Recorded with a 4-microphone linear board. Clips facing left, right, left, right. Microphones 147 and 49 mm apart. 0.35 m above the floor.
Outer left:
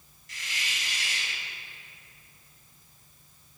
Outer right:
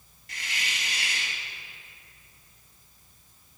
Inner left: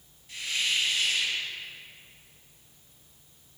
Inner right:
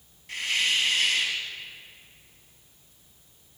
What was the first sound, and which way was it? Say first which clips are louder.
A hiss: outer right 2 dB, inner right 4 dB; 65° right (ahead or behind).